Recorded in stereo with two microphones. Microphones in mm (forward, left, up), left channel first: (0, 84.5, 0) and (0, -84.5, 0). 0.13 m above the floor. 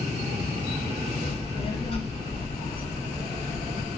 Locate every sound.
1.2 s a child speaking: 30° left (ahead or behind), 1.4 m; by 3.9 s 15° left (ahead or behind), 1.5 m